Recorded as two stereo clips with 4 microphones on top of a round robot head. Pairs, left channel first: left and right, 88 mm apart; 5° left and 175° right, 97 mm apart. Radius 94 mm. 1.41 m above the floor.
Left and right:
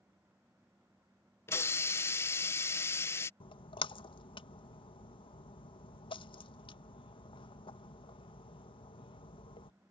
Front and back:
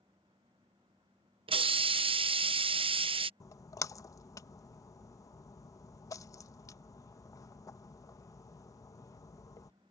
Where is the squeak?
No squeak in this recording.